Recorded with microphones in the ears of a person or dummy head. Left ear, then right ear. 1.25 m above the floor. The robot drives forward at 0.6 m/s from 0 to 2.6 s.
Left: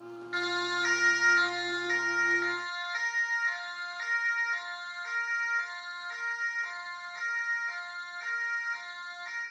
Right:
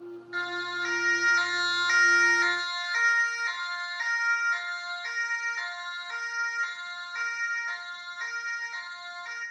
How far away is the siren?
About 3 m.